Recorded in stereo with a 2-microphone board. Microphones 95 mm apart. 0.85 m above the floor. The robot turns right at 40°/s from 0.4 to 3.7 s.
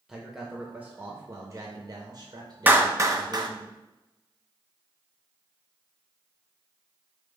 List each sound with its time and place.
0.1 s a man speaking: 175° right, 0.7 m; by 3.7 s 45° right, 0.7 m
2.7 s a clap: 20° right (ahead or behind), 0.5 m; by 3.5 s 50° right (ahead or behind), 0.5 m